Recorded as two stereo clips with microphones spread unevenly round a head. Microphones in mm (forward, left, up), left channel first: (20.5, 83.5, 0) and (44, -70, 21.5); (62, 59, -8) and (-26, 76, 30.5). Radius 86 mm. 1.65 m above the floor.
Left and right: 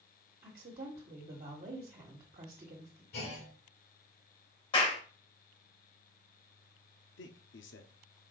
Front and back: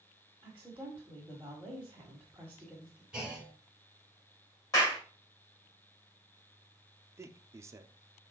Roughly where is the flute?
I don't hear a flute.